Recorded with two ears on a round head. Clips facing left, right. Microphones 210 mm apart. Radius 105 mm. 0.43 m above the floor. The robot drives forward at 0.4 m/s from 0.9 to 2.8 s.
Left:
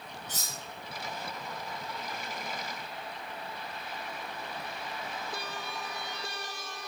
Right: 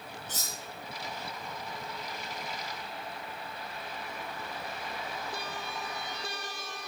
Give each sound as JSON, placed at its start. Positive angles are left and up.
{"t": 0.3, "sound": "cutlery clinking", "side_deg": 50, "distance_m": 3.0}